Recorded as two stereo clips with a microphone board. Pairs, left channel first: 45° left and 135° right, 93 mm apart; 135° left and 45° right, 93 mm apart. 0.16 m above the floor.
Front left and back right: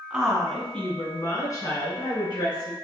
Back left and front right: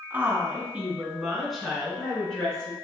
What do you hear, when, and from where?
0.1 s a woman speaking: 75° right, 1.4 m; by 2.8 s 55° left, 2.5 m